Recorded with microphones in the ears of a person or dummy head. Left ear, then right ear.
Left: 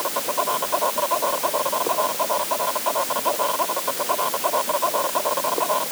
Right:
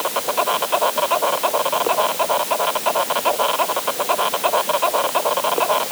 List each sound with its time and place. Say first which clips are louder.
0.0 s an insect: right 4 dB; 60° right (ahead or behind)